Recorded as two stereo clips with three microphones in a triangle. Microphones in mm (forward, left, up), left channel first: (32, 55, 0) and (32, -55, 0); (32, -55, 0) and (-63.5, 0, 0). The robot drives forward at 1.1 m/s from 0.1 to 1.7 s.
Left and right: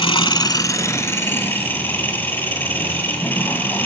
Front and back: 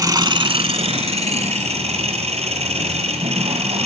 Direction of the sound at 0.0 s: 105° left.